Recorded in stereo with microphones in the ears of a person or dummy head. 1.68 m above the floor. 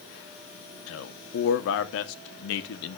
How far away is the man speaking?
About 1.1 m.